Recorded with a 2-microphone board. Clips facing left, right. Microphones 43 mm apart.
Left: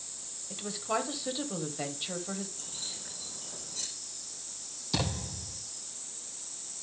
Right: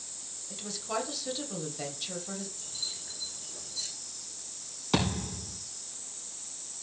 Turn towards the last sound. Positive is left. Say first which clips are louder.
# right 4 dB
turn(degrees=-55)  # may be behind; listen again after turning